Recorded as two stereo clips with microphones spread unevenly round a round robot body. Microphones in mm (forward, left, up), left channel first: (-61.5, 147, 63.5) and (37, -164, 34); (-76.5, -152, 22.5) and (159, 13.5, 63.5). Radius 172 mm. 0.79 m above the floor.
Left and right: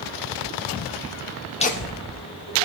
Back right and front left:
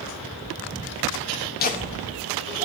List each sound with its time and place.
1.6 s laughter: straight behind, 0.7 m; by 2.6 s 105° left, 1.6 m